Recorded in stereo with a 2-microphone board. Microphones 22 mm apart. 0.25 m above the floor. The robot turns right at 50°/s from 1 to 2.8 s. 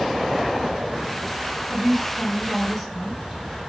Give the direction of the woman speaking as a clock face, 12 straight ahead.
1 o'clock.